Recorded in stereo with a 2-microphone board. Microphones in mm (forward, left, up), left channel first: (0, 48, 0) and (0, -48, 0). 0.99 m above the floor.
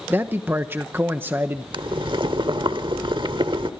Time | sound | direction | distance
0.1 | a man speaking | 20° right (ahead or behind) | 0.9 m
1.7 | boiling | 60° right (ahead or behind) | 1.2 m